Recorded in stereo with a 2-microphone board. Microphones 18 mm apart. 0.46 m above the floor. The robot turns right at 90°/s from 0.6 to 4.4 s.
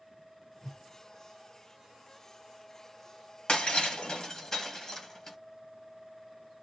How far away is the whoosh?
About 0.8 m.